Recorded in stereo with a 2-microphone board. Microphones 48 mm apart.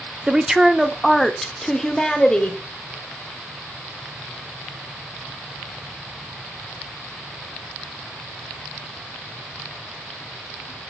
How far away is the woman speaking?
About 0.7 m.